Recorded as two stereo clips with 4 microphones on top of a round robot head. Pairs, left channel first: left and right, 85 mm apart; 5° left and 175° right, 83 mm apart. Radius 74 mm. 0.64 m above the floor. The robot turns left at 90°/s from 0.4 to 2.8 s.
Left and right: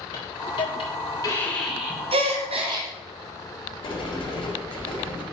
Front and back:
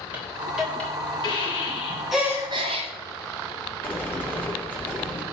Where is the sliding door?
75° left, 3.5 m.